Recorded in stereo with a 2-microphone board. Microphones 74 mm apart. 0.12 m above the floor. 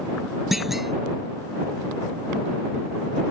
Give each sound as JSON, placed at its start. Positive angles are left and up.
{"t": 0.5, "sound": "a clunk", "side_deg": -5}